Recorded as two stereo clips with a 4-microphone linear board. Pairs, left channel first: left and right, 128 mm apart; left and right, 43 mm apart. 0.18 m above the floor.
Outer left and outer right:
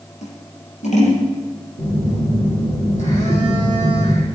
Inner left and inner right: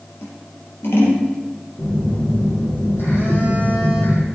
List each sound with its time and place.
0.2 s scissors: 65° left (ahead or behind), 4.5 m
1.8 s a phone buzzing: 70° left (ahead or behind), 6 m